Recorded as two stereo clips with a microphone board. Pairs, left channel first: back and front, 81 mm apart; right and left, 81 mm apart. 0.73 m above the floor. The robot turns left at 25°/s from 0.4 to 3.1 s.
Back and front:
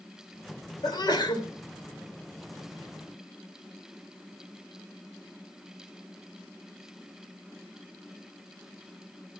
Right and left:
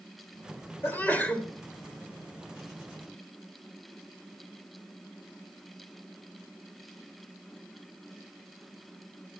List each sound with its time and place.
0.8 s a sneeze: 150° right, 2.5 m; by 1.5 s 165° right, 2.5 m